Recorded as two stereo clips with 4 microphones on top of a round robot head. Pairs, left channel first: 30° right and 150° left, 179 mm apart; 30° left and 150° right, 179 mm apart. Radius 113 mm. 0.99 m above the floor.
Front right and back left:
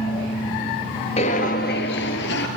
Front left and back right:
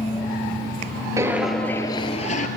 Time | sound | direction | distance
1.2 | footsteps | 80° right | 1.3 m